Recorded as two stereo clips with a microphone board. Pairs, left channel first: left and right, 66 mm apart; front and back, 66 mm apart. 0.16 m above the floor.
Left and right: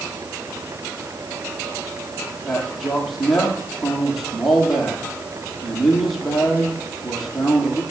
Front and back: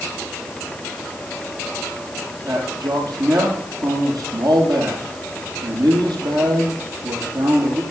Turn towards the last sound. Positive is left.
turn(degrees=180)